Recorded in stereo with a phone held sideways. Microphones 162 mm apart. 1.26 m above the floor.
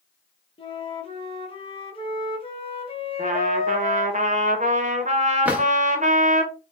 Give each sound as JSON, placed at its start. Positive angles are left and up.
{"t": 0.6, "sound": "a flute", "side_deg": 35, "distance_m": 0.7}
{"t": 3.2, "sound": "a trumpet", "side_deg": -50, "distance_m": 0.6}
{"t": 5.5, "sound": "a drawer", "side_deg": -10, "distance_m": 0.7}